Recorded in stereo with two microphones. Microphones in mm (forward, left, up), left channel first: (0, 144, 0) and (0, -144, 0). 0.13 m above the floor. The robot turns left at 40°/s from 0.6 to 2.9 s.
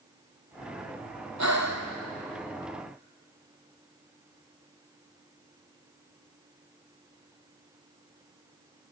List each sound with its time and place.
1.4 s breathing: 70° right (ahead or behind), 2.5 m; by 1.9 s 55° right (ahead or behind), 2.5 m